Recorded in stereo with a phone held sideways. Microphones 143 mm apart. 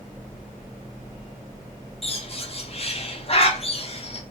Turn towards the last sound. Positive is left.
turn(degrees=45)  # may be behind; listen again after turning